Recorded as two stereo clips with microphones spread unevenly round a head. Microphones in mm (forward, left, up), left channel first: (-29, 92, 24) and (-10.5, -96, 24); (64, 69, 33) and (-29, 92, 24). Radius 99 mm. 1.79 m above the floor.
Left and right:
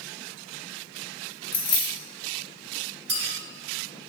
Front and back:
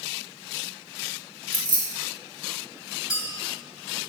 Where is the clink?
105° right, 2 m.